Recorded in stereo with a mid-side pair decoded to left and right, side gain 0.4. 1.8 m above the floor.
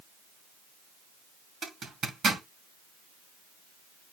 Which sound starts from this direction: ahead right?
A zipper, at 1.6 s.